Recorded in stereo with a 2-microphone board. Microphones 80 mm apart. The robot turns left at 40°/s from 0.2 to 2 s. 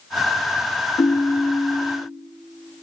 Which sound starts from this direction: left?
A ringtone, at 1.0 s.